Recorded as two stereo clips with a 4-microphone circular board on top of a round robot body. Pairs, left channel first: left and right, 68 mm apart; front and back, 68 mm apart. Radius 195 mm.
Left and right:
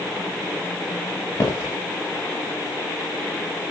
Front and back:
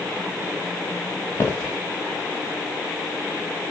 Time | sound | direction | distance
1.4 | footsteps | 55° left | 1.7 m